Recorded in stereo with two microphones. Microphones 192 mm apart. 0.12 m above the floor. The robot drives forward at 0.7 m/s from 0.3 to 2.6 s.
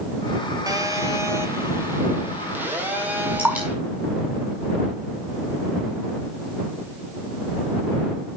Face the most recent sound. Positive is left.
turn(degrees=-10)  # may be behind; listen again after turning